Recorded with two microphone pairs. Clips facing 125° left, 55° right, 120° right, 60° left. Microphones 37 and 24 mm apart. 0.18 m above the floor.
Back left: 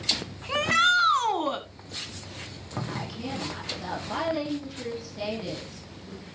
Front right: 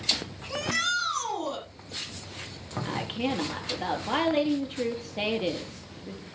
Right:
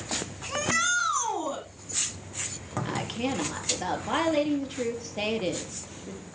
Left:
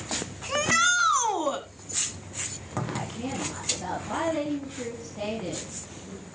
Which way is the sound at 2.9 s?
90° right.